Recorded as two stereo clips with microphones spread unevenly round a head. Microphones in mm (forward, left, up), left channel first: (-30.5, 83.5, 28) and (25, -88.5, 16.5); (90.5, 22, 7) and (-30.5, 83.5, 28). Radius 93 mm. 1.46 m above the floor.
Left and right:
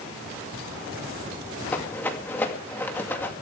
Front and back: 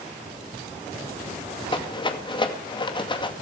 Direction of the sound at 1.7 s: 30° left.